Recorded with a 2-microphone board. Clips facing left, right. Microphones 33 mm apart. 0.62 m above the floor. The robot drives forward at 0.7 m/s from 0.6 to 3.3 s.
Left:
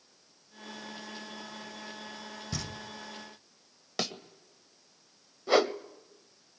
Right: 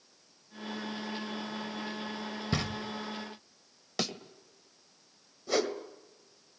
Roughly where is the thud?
Centre.